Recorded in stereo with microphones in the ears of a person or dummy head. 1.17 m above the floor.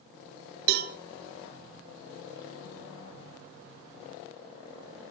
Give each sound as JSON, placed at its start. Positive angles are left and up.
{"t": 0.7, "sound": "a cowbell", "side_deg": -50, "distance_m": 0.6}